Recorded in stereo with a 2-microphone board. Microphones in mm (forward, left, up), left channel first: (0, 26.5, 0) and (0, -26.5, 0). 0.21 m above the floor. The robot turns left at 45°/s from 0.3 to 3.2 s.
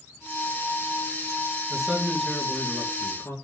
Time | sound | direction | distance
1.7 | a man speaking | 165° right | 2.5 m